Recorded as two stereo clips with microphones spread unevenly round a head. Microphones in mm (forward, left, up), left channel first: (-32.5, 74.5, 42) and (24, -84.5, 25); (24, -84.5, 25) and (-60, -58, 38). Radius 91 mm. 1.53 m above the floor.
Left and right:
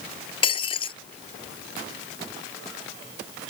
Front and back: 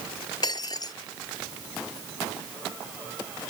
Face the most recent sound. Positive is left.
turn(degrees=50)